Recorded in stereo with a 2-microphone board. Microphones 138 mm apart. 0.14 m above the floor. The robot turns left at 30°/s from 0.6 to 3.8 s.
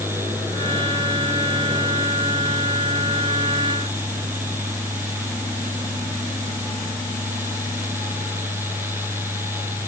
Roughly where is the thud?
I don't hear a thud.